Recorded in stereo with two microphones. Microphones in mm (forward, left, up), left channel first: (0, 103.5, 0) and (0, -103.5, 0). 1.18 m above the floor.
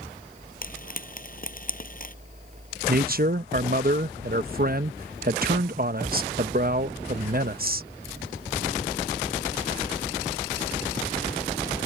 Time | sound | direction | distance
0.6 | frying | 45° left (ahead or behind) | ?
2.9 | a man speaking | 45° right (ahead or behind) | ?